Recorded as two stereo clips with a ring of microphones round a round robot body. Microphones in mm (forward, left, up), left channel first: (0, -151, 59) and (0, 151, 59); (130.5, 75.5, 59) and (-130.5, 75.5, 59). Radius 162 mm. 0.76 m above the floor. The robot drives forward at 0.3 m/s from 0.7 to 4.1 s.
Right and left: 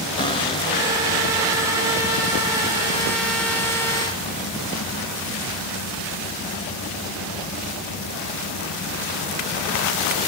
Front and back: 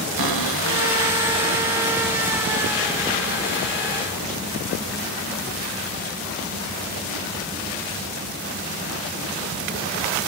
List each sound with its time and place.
0.2 s a cupboard door: 165° right, 1.1 m; by 3.8 s 170° right, 2 m